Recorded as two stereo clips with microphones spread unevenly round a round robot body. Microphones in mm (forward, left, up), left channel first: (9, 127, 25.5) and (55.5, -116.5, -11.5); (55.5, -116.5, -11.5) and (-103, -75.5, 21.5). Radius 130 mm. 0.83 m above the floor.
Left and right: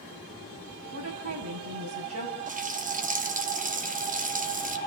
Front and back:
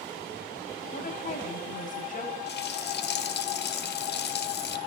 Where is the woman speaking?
50° right, 6.5 m.